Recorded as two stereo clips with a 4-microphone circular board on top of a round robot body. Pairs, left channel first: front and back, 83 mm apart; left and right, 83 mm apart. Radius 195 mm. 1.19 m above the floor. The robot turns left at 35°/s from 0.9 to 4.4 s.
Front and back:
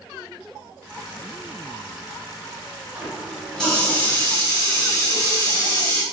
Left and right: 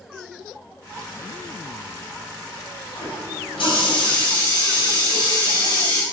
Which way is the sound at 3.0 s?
105° left.